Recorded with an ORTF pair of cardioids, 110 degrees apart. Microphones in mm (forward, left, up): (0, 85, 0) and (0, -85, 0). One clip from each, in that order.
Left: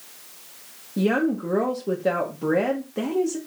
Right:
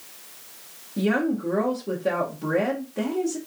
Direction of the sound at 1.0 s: 20° left.